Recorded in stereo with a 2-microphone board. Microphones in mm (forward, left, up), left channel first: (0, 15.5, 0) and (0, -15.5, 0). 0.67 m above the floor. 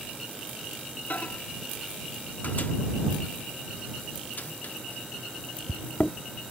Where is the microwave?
60° left (ahead or behind).